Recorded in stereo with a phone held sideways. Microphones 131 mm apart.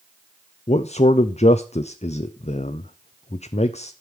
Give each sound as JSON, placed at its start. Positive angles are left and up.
{"t": 0.7, "sound": "a man speaking", "side_deg": 55, "distance_m": 0.6}